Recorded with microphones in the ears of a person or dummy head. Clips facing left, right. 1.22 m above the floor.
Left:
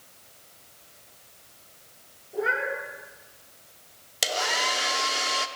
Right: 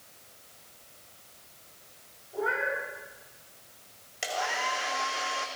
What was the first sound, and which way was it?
A cat meowing, 35° left (ahead or behind).